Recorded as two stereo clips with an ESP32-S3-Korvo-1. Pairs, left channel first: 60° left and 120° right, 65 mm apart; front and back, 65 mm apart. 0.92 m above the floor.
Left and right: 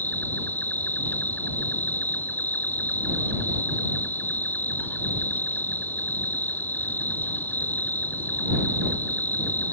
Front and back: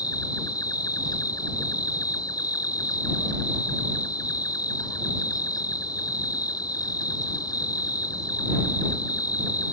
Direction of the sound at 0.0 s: Straight ahead.